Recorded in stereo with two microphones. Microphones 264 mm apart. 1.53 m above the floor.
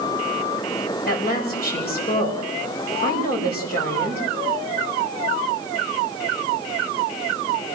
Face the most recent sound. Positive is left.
turn(degrees=35)  # may be behind; listen again after turning